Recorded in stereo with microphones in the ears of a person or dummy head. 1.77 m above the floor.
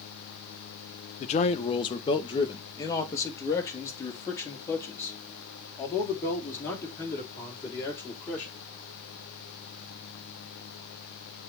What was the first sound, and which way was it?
A man speaking, 35° left (ahead or behind).